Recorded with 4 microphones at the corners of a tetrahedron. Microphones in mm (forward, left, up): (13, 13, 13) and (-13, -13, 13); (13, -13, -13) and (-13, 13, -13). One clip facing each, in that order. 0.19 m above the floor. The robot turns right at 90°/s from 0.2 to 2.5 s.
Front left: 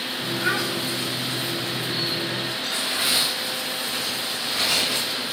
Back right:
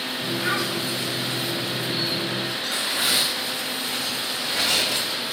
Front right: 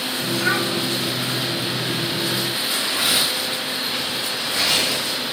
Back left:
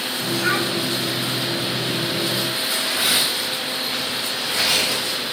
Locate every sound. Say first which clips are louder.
0.4 s a child speaking: front left 1 dB, even; 35° left, 4.5 m; by 0.7 s 60° left, 4.5 m
2.6 s tearing paper: even, even; 140° right, 4.5 m